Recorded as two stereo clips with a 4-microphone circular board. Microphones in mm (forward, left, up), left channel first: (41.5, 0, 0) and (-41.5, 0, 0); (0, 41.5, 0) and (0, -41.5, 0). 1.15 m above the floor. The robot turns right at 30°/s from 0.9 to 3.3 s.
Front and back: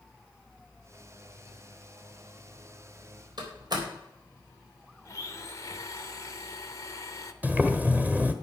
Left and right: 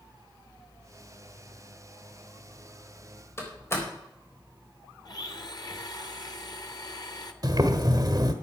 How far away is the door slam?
About 4 m.